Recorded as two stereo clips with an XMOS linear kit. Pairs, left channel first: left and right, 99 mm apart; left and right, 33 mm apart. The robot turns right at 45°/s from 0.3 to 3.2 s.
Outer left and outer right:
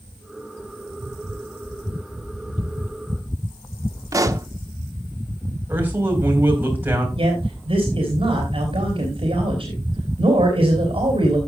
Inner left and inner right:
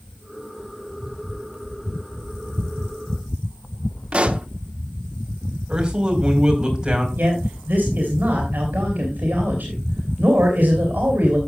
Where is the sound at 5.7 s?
20° right (ahead or behind), 3.5 m.